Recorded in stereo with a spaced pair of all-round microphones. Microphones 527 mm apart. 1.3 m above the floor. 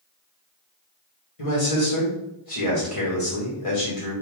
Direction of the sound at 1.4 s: 80° left.